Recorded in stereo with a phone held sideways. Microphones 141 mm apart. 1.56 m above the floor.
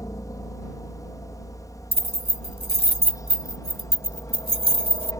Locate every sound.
0.0 s a helicopter: 25° left (ahead or behind); by 5.2 s 20° left (ahead or behind)
1.9 s keys jangling: 40° right (ahead or behind)